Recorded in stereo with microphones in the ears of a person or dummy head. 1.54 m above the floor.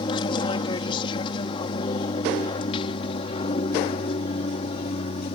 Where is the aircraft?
30° left (ahead or behind); by 5.4 s 35° left (ahead or behind).